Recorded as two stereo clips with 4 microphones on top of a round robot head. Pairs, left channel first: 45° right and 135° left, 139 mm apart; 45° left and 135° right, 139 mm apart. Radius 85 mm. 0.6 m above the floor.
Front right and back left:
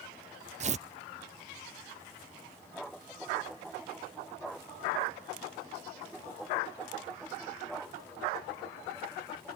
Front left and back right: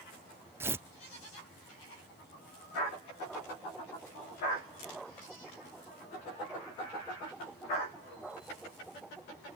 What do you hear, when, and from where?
0.6 s tearing paper: 155° left